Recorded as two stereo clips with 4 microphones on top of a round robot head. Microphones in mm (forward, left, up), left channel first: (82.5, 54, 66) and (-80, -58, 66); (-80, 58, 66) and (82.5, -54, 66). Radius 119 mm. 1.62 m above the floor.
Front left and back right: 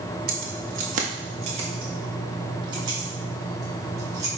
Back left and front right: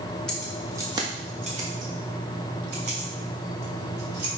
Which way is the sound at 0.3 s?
130° right.